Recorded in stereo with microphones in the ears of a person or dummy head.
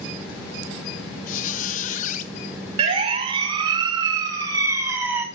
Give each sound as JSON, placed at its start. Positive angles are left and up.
{"t": 1.3, "sound": "a squeak", "side_deg": 45, "distance_m": 1.4}
{"t": 2.8, "sound": "a siren", "side_deg": -35, "distance_m": 3.5}